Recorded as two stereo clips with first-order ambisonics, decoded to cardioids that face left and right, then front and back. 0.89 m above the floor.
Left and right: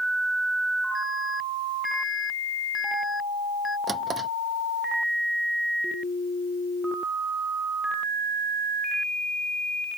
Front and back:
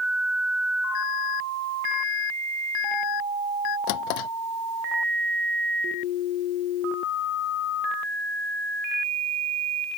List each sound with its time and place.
0.9 s an alarm: 10° left
3.9 s a drawer: 15° right